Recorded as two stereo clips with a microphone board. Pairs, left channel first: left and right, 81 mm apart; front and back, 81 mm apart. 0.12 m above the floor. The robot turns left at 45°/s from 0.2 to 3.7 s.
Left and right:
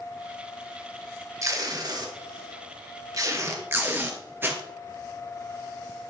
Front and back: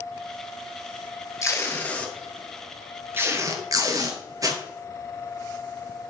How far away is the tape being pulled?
About 1.6 m.